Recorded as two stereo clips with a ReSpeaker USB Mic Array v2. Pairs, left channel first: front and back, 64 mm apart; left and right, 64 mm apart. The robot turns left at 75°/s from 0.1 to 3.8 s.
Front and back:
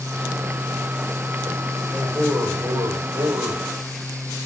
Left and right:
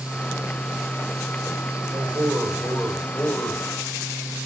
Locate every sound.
1.9 s a man speaking: 105° right, 5.5 m; by 3.6 s 130° left, 5.5 m